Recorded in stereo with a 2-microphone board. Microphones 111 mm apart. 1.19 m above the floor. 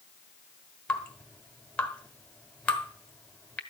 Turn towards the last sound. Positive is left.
turn(degrees=10)  # may be behind; listen again after turning